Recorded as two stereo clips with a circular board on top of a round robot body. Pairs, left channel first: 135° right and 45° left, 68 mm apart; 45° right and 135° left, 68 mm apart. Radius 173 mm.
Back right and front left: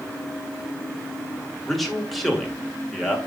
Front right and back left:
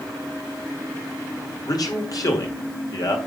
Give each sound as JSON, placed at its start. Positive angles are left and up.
{"t": 1.7, "sound": "a man speaking", "azimuth_deg": -45, "distance_m": 2.0}